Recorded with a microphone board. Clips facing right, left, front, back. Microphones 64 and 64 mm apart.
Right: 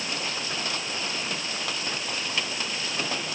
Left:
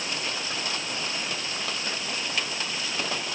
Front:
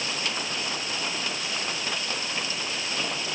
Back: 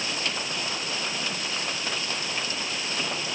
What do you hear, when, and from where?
Only background noise.